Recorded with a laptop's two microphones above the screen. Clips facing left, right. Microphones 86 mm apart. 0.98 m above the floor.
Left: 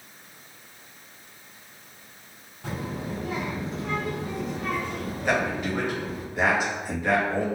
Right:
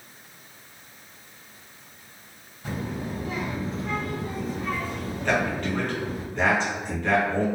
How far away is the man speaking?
About 0.8 m.